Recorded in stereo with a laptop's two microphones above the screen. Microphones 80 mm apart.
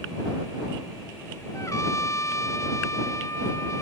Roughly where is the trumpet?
Left.